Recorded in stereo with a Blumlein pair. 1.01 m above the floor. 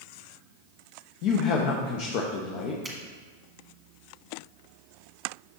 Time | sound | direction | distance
1.2 | a man speaking | 45° left | 0.8 m
2.8 | a finger snap | 10° right | 1.6 m